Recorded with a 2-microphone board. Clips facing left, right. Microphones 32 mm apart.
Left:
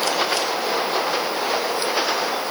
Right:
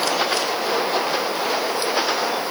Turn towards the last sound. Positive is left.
No sound to turn to.